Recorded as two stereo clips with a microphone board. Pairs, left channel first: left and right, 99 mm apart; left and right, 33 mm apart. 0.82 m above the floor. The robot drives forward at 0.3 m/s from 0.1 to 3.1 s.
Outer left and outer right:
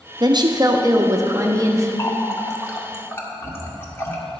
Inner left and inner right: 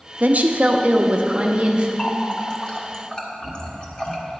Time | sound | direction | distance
0.2 | a woman speaking | 45° right (ahead or behind) | 0.7 m
2.0 | a running tap | 30° left (ahead or behind) | 1.0 m